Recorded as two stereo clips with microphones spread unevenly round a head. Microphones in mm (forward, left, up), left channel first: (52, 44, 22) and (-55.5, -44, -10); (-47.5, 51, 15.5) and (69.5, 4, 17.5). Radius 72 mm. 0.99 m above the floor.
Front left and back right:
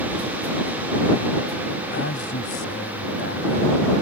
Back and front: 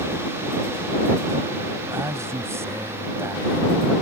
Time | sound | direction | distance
1.9 | a man speaking | 45° left | ?